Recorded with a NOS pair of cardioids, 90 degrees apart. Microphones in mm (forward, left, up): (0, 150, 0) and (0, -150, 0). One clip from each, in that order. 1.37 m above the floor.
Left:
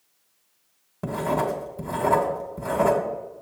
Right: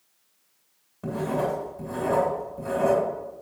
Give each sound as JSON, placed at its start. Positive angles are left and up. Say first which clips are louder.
{"t": 1.0, "sound": "writing", "louder": "left 2 dB", "azimuth_deg": 65, "distance_m": 2.0}